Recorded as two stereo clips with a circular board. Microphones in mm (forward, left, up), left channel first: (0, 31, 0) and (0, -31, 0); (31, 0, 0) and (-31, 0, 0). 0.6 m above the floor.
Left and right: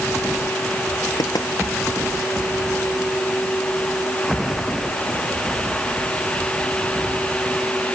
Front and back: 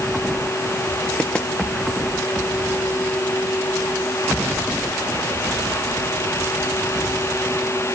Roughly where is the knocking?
Left.